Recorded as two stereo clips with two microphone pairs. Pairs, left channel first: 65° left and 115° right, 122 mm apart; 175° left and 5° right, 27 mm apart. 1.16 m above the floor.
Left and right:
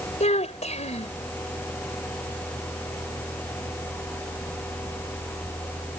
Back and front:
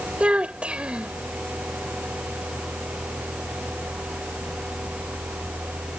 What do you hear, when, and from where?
0.2 s a child speaking: 40° left